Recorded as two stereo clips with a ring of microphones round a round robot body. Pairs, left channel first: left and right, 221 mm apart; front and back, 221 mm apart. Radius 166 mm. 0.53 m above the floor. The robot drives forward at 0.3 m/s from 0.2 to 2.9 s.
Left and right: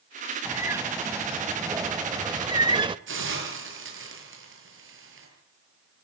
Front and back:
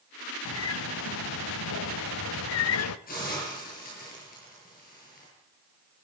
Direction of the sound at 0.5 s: 10° right.